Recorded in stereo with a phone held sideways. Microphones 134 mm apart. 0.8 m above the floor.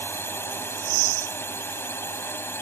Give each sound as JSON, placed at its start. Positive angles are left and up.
{"t": 0.0, "sound": "a drone", "side_deg": 15}